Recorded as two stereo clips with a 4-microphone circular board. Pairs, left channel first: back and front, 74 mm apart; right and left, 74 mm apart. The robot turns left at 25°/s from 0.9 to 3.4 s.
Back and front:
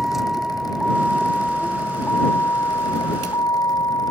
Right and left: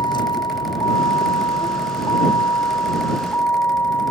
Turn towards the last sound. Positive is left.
turn(degrees=-150)